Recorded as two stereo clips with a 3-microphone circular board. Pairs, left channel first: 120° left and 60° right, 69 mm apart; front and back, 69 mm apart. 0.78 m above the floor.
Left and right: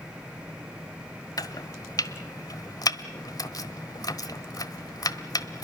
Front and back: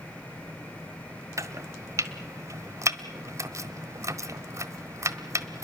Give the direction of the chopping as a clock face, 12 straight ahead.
7 o'clock.